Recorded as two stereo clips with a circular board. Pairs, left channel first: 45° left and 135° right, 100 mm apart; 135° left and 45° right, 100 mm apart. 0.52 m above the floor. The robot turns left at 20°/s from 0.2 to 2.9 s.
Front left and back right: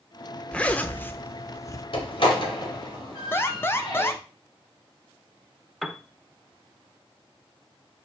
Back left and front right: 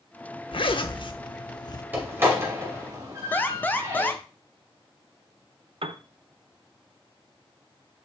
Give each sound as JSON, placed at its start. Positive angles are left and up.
{"t": 0.5, "sound": "a zipper", "azimuth_deg": 125, "distance_m": 0.6}
{"t": 1.9, "sound": "a door slam", "azimuth_deg": 25, "distance_m": 2.0}
{"t": 3.3, "sound": "an alarm", "azimuth_deg": 85, "distance_m": 0.6}
{"t": 5.8, "sound": "a piano", "azimuth_deg": -45, "distance_m": 0.5}